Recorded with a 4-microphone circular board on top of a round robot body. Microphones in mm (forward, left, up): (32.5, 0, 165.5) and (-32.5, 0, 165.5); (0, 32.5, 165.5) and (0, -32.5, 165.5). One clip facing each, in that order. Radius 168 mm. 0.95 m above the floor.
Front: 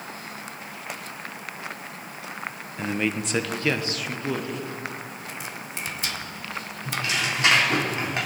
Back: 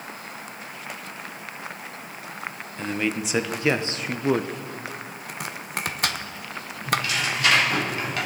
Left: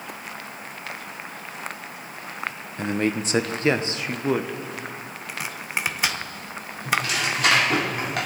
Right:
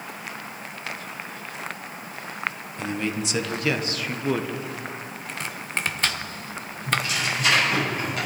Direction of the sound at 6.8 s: 65° left.